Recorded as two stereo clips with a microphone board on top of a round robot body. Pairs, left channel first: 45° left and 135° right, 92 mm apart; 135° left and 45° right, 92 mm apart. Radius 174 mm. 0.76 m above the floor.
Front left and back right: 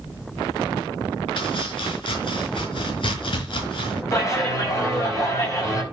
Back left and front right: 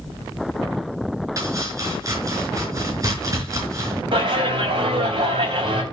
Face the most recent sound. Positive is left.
turn(degrees=-15)